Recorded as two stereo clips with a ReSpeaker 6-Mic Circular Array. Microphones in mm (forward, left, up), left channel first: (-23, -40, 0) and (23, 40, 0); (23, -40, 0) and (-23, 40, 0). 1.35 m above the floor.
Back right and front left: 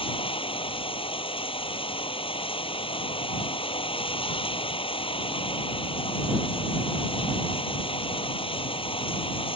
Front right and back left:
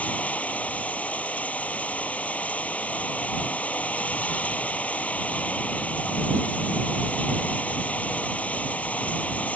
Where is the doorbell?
No doorbell in this recording.